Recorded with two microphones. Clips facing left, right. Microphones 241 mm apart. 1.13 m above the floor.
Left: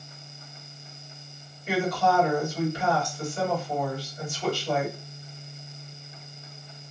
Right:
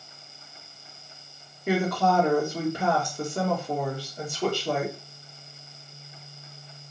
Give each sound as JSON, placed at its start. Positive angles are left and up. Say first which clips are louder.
{"t": 1.7, "sound": "a woman speaking", "louder": "right 1 dB", "side_deg": -60, "distance_m": 1.1}